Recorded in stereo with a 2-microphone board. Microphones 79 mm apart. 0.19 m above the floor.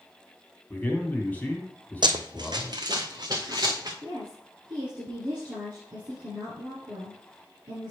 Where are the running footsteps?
70° right (ahead or behind), 0.6 m; by 3.9 s 50° right (ahead or behind), 1.6 m.